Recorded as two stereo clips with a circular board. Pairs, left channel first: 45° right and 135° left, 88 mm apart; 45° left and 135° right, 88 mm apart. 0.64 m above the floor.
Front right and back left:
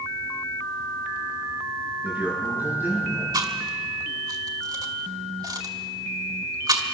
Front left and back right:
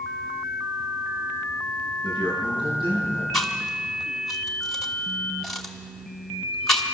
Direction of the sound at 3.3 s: 130° left.